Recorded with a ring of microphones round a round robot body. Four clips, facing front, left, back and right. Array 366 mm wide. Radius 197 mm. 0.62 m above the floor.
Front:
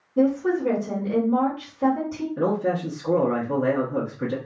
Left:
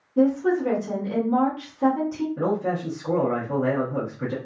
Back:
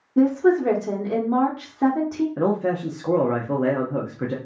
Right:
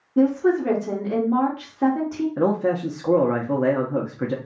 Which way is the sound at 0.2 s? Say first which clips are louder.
Right 2 dB, back 3 dB; 145° right.